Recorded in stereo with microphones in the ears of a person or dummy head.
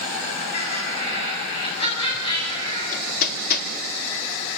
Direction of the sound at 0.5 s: 35° left (ahead or behind).